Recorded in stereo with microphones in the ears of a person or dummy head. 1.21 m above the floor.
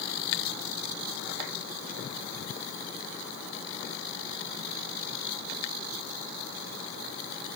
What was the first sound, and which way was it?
Only background noise.